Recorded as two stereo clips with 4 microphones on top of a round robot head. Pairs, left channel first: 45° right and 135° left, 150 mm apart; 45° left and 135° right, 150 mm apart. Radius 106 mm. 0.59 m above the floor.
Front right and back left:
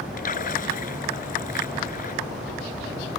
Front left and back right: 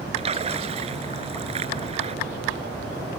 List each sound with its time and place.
0.2 s a splash: 85° right